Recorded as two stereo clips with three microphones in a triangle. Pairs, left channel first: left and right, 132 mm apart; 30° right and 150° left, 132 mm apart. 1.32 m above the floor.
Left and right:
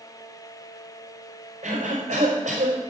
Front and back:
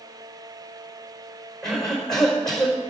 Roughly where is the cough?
Behind right.